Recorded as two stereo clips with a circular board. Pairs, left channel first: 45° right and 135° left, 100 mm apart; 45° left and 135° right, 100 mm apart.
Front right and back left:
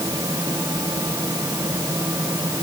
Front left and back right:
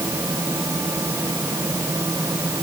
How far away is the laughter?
I don't hear laughter.